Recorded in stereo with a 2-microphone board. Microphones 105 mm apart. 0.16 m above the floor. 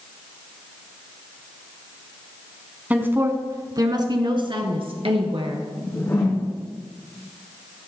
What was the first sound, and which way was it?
A woman speaking, 15° right (ahead or behind).